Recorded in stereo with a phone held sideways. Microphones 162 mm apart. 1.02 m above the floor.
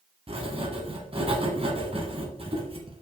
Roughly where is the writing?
Right.